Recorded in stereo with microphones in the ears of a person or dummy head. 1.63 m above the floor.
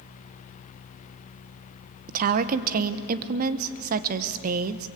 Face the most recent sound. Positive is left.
turn(degrees=-50)  # may be behind; listen again after turning